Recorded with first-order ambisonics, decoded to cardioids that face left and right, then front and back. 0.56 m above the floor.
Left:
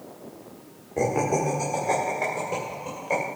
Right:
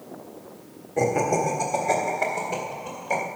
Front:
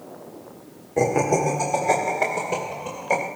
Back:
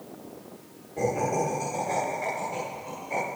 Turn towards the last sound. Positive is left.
turn(degrees=10)